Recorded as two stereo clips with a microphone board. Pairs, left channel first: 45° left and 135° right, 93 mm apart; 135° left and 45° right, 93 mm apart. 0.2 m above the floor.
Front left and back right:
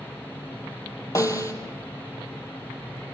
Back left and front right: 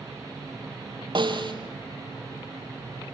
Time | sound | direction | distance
1.1 | a snare drum | 10° right | 3 m